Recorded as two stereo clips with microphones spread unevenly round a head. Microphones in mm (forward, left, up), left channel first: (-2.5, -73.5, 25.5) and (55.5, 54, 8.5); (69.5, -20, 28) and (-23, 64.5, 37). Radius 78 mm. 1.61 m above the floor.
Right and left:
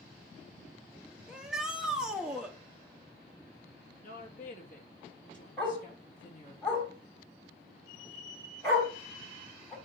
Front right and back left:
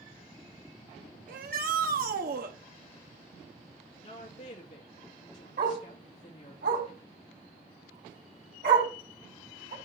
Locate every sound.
1.3 s a shout: 150° left, 1.4 m
4.0 s a woman speaking: 85° right, 2.5 m
5.6 s a dog barking: 165° left, 4 m